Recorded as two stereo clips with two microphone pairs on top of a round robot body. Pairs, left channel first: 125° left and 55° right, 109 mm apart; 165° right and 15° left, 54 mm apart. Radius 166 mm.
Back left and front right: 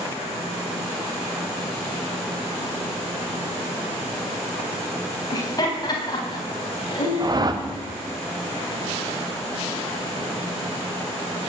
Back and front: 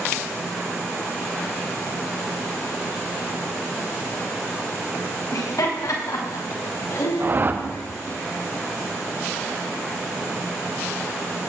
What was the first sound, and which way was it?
Laughter, straight behind.